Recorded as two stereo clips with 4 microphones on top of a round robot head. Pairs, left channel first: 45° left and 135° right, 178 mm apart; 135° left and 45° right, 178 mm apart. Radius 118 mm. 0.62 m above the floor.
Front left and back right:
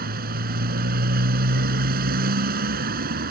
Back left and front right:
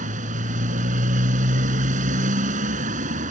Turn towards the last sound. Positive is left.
turn(degrees=-95)